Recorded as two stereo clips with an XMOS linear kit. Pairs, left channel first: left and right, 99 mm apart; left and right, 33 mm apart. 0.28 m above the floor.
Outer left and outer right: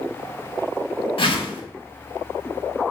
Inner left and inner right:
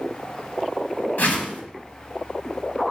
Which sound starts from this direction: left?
A whoosh, at 1.2 s.